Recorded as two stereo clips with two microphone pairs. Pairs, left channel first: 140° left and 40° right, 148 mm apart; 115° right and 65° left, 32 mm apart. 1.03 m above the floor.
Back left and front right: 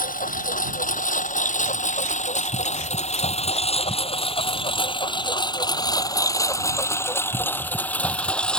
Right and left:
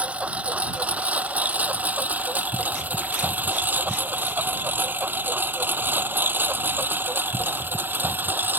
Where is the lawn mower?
115° left; by 8.6 s 55° left.